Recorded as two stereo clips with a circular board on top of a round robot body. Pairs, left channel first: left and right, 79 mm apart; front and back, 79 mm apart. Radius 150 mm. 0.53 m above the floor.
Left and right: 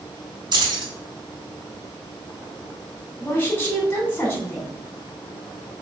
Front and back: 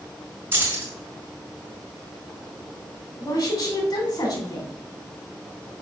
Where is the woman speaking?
25° left, 3 m.